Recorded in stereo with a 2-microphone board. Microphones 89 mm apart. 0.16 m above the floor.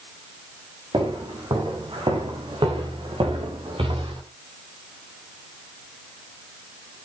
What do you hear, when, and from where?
0.9 s footsteps: 60° right (ahead or behind), 7 m; by 4.2 s 90° right, 6.5 m